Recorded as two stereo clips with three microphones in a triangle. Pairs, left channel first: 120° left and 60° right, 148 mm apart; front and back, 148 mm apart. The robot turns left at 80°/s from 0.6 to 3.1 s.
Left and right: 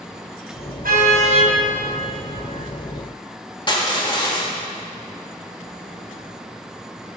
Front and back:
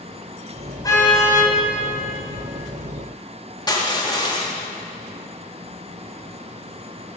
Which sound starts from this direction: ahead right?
A car horn, at 0.8 s.